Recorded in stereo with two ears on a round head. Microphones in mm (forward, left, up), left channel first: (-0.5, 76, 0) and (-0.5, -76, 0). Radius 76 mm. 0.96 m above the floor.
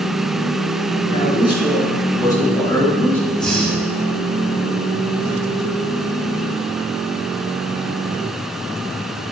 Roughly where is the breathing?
Centre.